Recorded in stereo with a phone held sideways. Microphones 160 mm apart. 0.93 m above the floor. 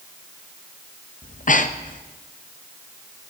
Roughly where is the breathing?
Left.